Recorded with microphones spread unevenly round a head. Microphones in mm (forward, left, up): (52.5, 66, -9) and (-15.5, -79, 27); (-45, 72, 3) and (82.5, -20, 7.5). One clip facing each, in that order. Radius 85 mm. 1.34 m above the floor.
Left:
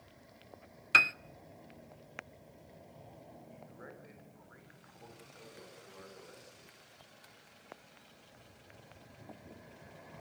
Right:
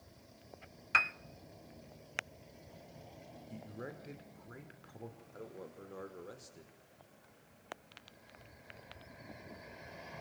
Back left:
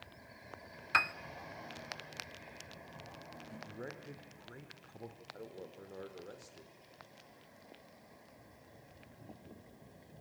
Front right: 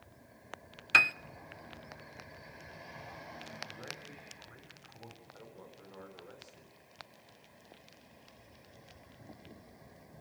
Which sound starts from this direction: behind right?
A man speaking, at 5.3 s.